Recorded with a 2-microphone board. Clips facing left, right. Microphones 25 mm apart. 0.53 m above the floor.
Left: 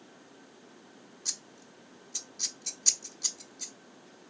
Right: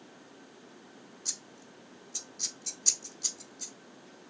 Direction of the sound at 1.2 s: 10° left (ahead or behind).